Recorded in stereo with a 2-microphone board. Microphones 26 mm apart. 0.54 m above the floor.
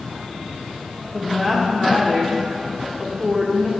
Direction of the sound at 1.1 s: 10° left (ahead or behind).